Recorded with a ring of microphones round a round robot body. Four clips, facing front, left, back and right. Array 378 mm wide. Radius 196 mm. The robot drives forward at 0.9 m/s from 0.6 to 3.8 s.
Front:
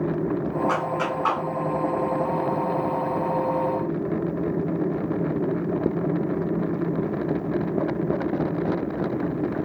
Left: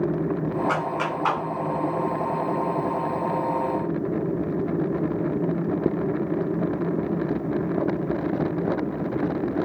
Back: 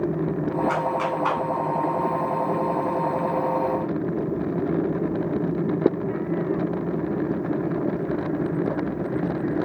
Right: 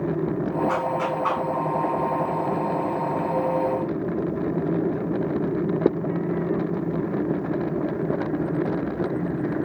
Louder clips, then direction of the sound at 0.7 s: Right 1 dB, back 1 dB; 60° left.